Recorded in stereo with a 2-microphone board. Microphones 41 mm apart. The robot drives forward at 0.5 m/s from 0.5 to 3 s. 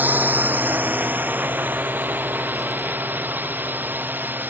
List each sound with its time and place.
0.0 s a drone: 50° right (ahead or behind); by 4.5 s 55° right (ahead or behind)